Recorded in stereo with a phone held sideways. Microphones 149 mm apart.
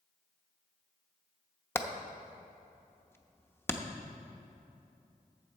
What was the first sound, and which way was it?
Hammering, 15° left (ahead or behind).